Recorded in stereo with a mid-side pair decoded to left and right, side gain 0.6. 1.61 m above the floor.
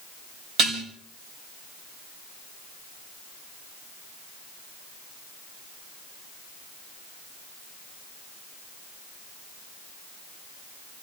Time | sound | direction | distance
0.6 | dishes clattering | 65° right | 4.5 m